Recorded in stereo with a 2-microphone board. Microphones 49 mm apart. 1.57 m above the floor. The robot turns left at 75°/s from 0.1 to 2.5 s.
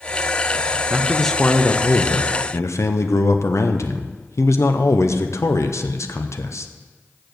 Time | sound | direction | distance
0.9 | a man speaking | 160° right | 0.7 m